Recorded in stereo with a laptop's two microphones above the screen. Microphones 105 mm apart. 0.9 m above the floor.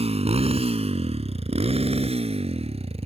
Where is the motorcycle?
85° right; by 3.1 s 75° right (ahead or behind).